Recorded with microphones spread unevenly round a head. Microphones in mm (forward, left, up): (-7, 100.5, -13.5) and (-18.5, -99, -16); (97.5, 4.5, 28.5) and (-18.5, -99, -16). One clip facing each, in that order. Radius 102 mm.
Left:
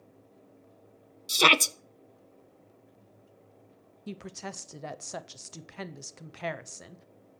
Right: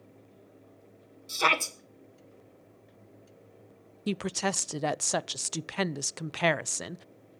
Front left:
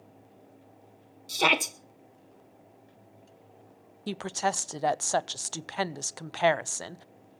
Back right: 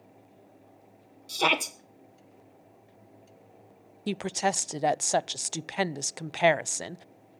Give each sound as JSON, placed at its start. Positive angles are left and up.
{"t": 1.3, "sound": "a shout", "azimuth_deg": 130, "distance_m": 1.1}
{"t": 4.1, "sound": "a woman speaking", "azimuth_deg": -70, "distance_m": 0.5}